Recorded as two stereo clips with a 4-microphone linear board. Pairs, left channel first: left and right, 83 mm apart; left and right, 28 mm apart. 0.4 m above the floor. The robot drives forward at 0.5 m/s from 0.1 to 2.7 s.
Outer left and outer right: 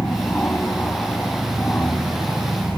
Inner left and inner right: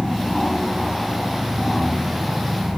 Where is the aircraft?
20° left (ahead or behind); by 2.8 s 15° left (ahead or behind).